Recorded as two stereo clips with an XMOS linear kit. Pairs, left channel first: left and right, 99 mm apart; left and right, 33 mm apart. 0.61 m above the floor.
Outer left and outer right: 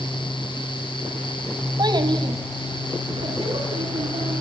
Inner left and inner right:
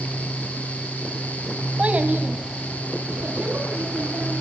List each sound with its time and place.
1.8 s a child speaking: 45° right (ahead or behind), 2 m; by 4.4 s 85° right, 5.5 m